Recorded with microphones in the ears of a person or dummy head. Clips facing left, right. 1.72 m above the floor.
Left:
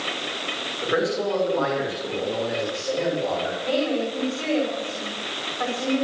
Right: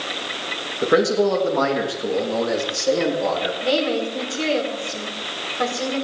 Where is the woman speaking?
50° right (ahead or behind), 5 m.